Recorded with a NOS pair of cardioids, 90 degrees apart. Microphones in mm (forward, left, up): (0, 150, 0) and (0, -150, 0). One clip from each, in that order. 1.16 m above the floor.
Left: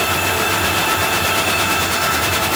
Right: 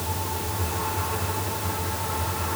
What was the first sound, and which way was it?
Only background noise.